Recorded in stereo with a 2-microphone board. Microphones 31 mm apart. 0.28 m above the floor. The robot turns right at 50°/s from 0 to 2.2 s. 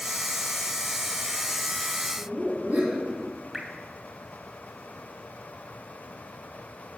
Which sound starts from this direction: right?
Laughter, at 2.2 s.